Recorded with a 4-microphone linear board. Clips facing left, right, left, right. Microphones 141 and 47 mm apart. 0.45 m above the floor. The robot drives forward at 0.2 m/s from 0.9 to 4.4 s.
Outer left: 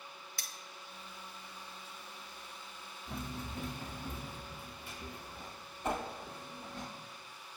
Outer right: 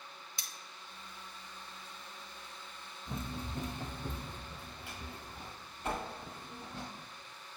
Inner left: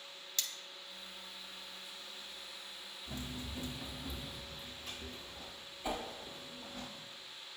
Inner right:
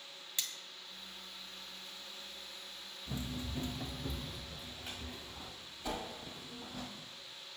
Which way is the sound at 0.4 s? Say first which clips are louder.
Outer left 1 dB, even; 20° right (ahead or behind).